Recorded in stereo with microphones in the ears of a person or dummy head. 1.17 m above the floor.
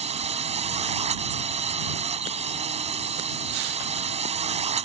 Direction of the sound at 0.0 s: 40° right (ahead or behind).